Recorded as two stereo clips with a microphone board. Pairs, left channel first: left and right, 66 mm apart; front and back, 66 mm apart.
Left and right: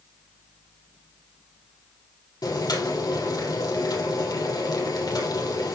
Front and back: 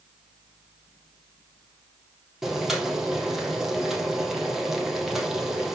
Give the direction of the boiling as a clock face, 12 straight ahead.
9 o'clock.